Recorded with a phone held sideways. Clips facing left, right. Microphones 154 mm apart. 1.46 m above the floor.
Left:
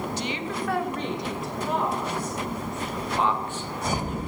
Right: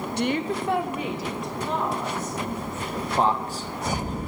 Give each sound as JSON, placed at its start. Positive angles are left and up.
{"t": 0.2, "sound": "a woman speaking", "side_deg": -65, "distance_m": 0.8}
{"t": 2.9, "sound": "a man speaking", "side_deg": -35, "distance_m": 1.3}